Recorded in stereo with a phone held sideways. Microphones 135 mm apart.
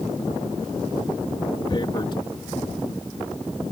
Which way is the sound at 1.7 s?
40° left (ahead or behind).